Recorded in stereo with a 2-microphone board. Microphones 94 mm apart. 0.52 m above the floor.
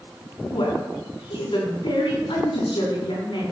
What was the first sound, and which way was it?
A woman speaking, 60° left (ahead or behind).